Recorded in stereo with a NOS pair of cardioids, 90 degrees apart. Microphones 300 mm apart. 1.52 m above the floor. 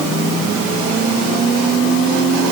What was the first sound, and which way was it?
Only background noise.